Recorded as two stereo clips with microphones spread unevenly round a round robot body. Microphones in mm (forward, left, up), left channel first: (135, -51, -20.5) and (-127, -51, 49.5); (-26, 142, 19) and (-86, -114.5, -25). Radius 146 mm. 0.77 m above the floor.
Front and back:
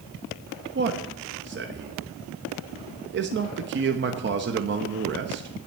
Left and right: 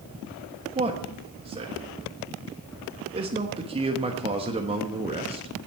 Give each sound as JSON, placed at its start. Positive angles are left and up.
{"t": 0.8, "sound": "a man speaking", "azimuth_deg": -140, "distance_m": 1.2}